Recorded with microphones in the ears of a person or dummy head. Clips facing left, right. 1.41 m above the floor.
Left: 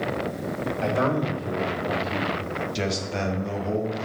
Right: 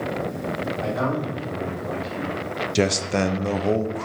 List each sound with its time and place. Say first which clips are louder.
0.8 s a man speaking: left 3 dB; 35° left (ahead or behind), 3 m; by 2.4 s 5° left (ahead or behind), 3 m
2.8 s a man speaking: right 10 dB; 60° right (ahead or behind), 0.8 m